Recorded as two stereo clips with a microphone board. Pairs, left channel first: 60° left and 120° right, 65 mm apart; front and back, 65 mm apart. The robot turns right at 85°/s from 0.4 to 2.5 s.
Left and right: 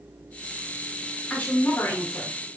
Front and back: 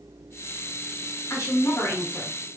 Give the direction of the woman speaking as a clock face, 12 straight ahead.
12 o'clock.